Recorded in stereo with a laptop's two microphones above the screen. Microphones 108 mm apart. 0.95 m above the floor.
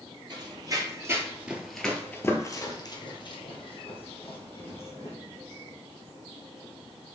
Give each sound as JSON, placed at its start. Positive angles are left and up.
{"t": 0.3, "sound": "running footsteps", "side_deg": -45, "distance_m": 1.4}